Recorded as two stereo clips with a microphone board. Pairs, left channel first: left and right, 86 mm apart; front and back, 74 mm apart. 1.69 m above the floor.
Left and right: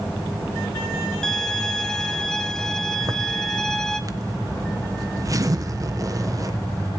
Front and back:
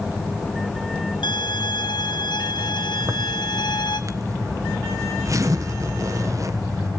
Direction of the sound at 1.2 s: 5° left.